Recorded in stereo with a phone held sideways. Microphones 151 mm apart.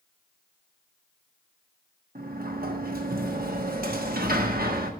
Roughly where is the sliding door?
Right.